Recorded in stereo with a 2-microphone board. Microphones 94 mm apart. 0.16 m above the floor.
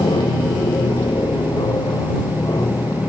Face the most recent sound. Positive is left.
turn(degrees=35)  # may be behind; listen again after turning